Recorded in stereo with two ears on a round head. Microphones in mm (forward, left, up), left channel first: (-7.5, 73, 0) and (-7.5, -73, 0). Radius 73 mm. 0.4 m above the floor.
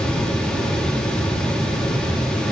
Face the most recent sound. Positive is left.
No sound to turn to.